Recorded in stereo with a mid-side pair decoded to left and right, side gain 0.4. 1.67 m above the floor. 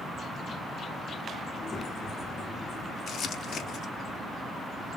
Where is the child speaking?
45° left, 2 m.